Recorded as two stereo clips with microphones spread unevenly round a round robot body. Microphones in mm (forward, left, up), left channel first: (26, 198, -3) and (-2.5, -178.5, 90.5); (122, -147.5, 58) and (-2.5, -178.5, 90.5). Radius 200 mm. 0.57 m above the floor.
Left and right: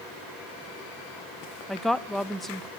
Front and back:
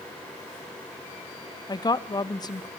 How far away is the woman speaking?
About 0.9 m.